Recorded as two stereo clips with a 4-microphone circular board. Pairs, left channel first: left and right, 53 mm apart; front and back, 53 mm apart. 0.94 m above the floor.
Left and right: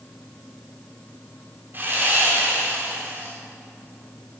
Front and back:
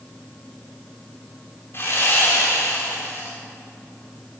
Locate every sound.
1.7 s sawing: 40° right, 3.5 m